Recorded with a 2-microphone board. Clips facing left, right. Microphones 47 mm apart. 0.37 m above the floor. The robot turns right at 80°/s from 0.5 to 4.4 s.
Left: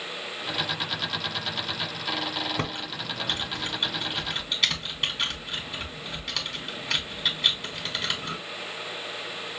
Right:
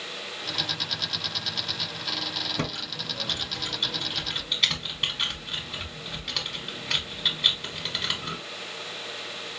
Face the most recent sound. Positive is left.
turn(degrees=0)  # may be behind; listen again after turning